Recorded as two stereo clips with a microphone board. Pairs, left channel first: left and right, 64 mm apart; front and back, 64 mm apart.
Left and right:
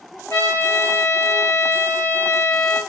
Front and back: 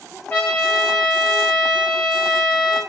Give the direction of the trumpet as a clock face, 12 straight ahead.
10 o'clock.